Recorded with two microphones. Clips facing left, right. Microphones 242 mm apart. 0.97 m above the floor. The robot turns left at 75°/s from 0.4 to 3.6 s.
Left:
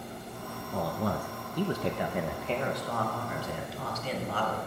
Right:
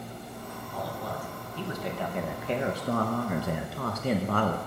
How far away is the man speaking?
About 0.6 m.